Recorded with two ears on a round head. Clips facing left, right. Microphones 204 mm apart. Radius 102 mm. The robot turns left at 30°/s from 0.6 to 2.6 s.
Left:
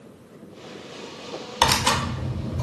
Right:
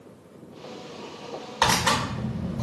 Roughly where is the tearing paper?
Left.